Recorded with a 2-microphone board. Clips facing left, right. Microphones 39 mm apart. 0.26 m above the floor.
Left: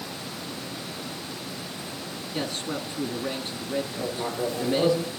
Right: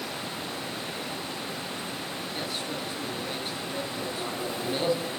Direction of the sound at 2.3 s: 60° left (ahead or behind).